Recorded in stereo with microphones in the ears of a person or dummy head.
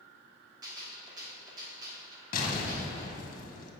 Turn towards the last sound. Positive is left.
turn(degrees=45)  # may be behind; listen again after turning